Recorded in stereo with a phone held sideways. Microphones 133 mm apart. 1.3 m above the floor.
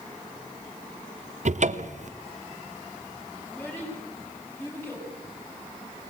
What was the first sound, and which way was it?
A cupboard door, 55° right (ahead or behind).